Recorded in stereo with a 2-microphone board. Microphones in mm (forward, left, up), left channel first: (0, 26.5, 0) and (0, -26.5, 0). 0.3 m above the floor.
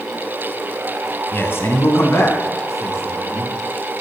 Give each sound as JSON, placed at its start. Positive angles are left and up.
{"t": 1.3, "sound": "a man speaking", "side_deg": 45, "distance_m": 2.0}